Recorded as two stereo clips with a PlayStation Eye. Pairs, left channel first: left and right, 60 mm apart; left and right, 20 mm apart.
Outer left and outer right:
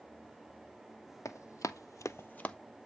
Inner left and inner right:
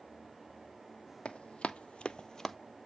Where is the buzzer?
I don't hear a buzzer.